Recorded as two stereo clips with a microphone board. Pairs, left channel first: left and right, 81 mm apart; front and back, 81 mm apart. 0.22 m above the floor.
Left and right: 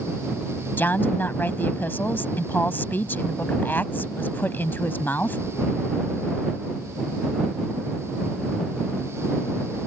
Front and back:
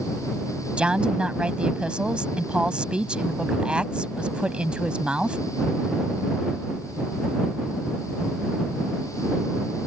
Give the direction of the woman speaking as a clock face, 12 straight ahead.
8 o'clock.